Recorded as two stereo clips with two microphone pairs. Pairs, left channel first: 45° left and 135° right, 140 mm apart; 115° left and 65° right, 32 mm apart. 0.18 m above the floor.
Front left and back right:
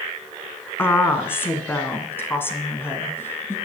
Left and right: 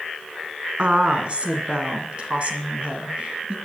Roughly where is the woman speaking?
Ahead right.